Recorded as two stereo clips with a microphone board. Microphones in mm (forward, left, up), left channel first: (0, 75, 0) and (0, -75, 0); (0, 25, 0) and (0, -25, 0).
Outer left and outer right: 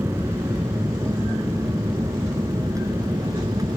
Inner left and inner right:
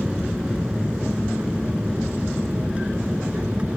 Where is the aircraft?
15° right (ahead or behind); by 3.8 s 25° right (ahead or behind).